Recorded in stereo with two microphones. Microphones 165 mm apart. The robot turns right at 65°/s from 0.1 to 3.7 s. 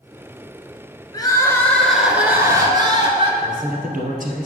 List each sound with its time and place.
1.1 s crying: 125° left, 1.4 m; by 3.3 s 90° right, 1.4 m
3.4 s a man speaking: 50° right (ahead or behind), 2 m; by 4.5 s 55° right (ahead or behind), 2 m